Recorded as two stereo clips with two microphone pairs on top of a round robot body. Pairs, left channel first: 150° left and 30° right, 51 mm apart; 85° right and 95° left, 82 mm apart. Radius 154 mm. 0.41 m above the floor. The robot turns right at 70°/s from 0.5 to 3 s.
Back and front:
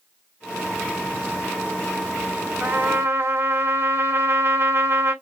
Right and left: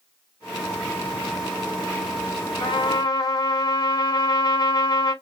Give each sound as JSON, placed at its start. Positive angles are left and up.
{"t": 2.6, "sound": "a trumpet", "azimuth_deg": -80, "distance_m": 1.9}